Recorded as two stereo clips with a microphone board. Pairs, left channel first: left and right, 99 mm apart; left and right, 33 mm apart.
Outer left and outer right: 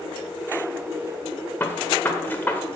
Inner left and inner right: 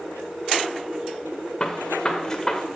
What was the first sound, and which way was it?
A gunshot, 20° left (ahead or behind).